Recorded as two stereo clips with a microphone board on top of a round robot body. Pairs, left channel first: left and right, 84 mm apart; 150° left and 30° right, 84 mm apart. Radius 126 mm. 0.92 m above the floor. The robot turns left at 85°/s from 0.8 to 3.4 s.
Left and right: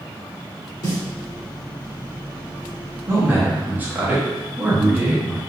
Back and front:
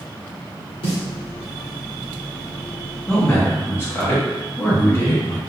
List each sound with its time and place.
0.8 s a snare drum: 135° left, 1.4 m; by 1.0 s 120° left, 1.4 m
3.1 s a man speaking: 130° right, 1.0 m; by 5.4 s 155° right, 1.0 m